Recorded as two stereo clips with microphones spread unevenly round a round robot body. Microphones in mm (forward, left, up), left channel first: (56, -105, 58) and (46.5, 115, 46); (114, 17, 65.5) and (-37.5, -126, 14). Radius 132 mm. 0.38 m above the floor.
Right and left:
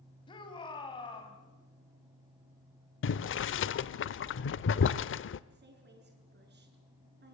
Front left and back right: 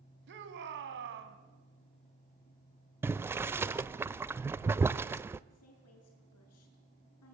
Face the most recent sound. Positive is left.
turn(degrees=55)